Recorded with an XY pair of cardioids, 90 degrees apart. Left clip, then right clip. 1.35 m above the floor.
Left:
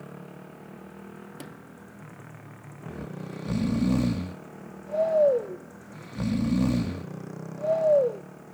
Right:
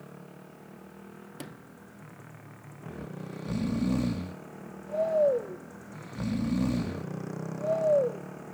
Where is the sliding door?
5° right.